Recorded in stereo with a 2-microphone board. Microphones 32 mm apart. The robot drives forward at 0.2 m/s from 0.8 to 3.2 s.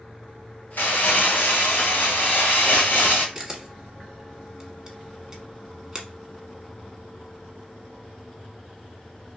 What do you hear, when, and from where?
0.8 s crumpling: 80° left, 1.3 m; by 3.2 s 65° left (ahead or behind), 1.4 m
3.4 s a camera shutter: 15° right (ahead or behind), 1.0 m